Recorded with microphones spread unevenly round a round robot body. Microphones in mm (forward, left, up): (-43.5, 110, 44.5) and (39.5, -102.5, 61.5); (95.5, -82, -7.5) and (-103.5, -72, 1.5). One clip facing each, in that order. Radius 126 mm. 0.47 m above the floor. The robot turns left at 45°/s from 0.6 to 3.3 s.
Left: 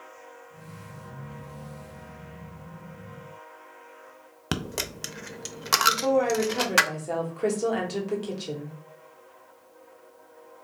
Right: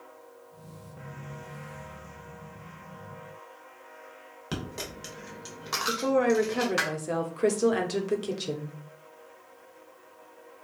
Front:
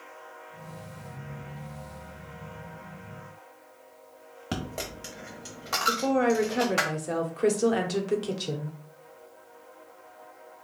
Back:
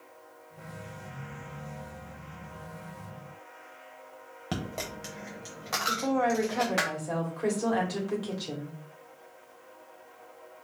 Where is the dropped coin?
90° left, 0.6 m.